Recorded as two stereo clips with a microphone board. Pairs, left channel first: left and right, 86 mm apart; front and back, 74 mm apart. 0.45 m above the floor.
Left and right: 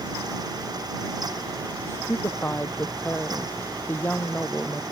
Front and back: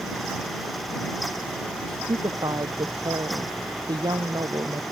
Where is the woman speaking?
155° left; by 4.8 s 160° left.